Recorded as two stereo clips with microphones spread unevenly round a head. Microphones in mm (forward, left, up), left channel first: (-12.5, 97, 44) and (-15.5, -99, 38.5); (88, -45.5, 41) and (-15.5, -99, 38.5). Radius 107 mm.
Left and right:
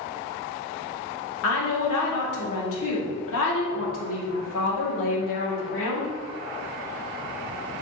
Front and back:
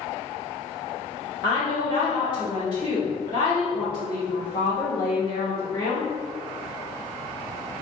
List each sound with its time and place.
1.4 s a woman speaking: 90° left, 2 m